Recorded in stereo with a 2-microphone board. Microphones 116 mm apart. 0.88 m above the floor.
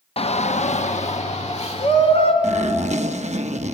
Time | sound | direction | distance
0.2 | a shout | 55° left (ahead or behind) | 0.7 m
2.4 | a zipper | 80° right | 0.8 m